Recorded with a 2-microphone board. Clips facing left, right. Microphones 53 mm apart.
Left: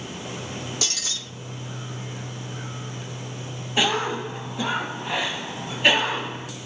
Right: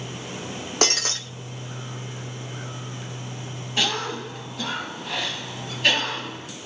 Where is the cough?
20° left (ahead or behind), 1.1 m.